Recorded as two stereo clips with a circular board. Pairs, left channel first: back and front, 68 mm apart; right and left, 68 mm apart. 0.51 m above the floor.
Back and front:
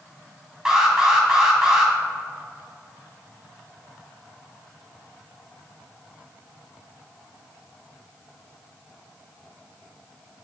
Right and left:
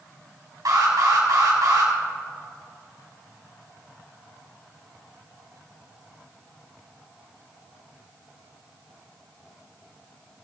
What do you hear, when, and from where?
0.7 s an alarm: 75° left, 3 m